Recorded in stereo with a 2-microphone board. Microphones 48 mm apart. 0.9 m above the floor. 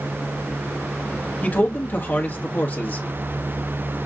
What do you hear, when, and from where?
1.4 s a man speaking: 40° left (ahead or behind), 1.3 m